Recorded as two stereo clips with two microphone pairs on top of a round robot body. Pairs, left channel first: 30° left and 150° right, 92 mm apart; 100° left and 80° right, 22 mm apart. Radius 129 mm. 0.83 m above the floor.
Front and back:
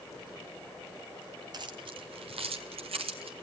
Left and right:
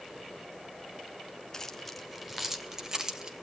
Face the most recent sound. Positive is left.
turn(degrees=-140)